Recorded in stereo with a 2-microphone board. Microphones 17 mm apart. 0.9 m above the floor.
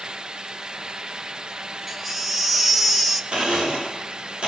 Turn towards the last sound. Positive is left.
turn(degrees=-70)  # may be behind; listen again after turning